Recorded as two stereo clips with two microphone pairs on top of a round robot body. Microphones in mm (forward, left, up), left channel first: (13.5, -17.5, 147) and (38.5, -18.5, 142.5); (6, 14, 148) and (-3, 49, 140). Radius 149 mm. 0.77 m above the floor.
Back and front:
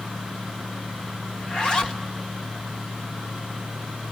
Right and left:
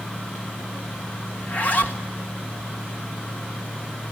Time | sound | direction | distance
1.4 | a zipper | 130° right | 1.9 m